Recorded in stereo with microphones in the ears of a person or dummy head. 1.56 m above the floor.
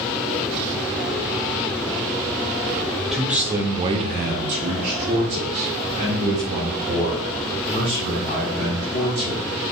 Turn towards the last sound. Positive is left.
turn(degrees=-25)  # may be behind; listen again after turning